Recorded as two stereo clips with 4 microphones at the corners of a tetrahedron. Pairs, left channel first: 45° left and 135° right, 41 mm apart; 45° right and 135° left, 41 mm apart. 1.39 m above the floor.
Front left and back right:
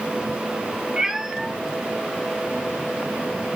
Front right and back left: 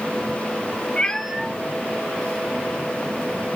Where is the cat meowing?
70° right, 0.6 m; by 3.6 s 125° left, 2.5 m.